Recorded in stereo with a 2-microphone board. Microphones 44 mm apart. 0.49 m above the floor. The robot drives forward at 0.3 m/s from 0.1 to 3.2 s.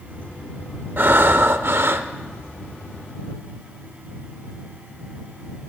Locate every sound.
1.0 s breathing: 55° right (ahead or behind), 0.7 m; by 2.1 s 65° right (ahead or behind), 0.6 m